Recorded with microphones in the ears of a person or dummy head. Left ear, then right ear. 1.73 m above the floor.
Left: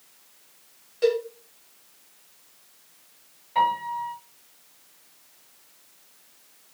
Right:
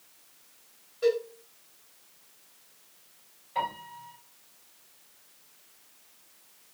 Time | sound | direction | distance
1.0 | a cowbell | 45° left (ahead or behind) | 1.2 m
3.5 | a piano | 20° left (ahead or behind) | 1.6 m